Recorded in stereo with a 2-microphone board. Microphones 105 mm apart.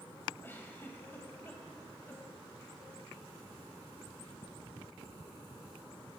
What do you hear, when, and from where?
0.4 s a giggle: 20° left (ahead or behind), 3.5 m